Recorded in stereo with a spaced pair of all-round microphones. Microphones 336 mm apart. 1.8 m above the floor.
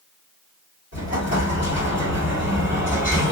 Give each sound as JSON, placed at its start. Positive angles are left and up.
{"t": 0.9, "sound": "an explosion", "side_deg": 45, "distance_m": 2.5}